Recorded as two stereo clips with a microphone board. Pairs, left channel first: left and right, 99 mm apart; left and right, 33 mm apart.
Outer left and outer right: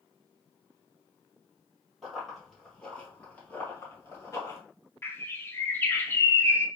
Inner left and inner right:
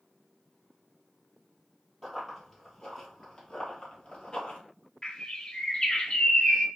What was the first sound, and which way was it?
Running footsteps, centre (ahead or behind).